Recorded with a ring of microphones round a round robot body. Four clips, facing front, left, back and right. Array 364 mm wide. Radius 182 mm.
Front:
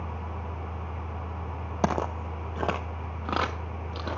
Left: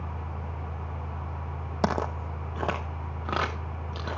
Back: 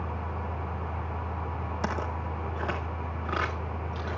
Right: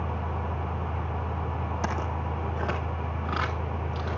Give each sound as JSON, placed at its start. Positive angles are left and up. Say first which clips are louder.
{"t": 1.8, "sound": "footsteps", "louder": "left 7 dB, front 6 dB", "azimuth_deg": 35, "distance_m": 1.1}